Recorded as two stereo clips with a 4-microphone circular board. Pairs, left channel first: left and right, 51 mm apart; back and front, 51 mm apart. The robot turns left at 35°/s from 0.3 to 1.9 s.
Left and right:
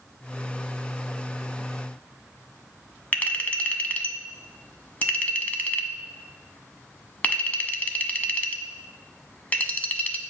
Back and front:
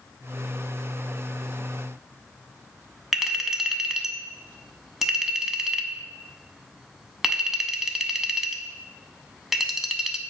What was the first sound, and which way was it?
A clink, 80° left.